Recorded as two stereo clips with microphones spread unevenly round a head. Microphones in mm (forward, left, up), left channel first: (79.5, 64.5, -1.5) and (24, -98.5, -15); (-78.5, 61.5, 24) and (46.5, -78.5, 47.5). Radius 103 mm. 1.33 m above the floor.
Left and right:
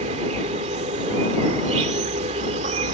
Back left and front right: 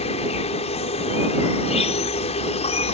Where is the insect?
170° right.